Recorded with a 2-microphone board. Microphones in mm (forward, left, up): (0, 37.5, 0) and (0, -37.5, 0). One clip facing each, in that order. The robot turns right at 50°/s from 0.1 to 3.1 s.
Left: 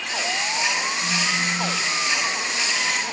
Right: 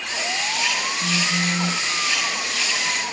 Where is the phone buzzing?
80° right, 3 m; by 1.9 s 35° right, 3 m.